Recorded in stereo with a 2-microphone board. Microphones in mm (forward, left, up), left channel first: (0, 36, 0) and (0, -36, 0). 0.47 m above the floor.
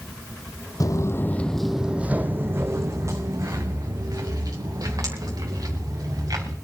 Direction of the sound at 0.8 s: 50° left (ahead or behind).